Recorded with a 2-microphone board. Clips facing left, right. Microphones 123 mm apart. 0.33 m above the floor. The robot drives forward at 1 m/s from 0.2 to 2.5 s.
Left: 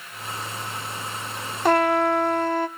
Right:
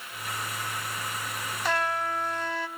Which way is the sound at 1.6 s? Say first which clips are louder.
Left 10 dB; 50° left (ahead or behind).